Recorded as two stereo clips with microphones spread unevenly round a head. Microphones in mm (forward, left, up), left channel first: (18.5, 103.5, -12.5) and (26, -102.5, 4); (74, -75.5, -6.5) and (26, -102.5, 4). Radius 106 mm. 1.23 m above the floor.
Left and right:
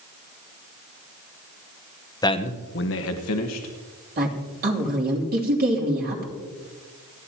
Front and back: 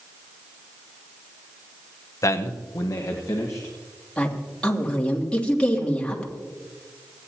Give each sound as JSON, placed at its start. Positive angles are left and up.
{"t": 2.2, "sound": "a man speaking", "azimuth_deg": 20, "distance_m": 1.0}
{"t": 4.2, "sound": "a woman speaking", "azimuth_deg": -40, "distance_m": 3.0}